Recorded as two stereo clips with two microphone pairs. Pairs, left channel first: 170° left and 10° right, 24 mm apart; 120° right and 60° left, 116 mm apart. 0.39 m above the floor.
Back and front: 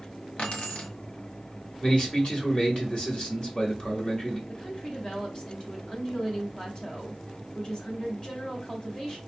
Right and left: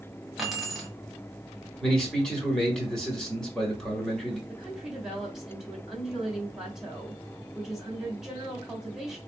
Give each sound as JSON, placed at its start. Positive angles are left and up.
{"t": 0.4, "sound": "keys jangling", "azimuth_deg": 150, "distance_m": 1.5}
{"t": 1.8, "sound": "a man speaking", "azimuth_deg": 160, "distance_m": 1.8}
{"t": 4.5, "sound": "a woman speaking", "azimuth_deg": 145, "distance_m": 1.8}